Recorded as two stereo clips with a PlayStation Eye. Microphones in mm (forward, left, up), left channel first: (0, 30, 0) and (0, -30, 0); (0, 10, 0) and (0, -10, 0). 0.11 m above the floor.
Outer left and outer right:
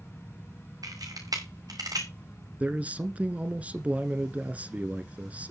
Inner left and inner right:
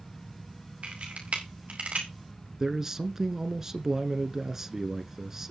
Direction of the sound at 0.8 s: 75° right (ahead or behind).